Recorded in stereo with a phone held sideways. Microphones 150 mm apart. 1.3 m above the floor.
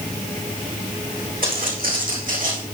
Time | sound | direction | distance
1.4 | footsteps | 70° right (ahead or behind) | 4 m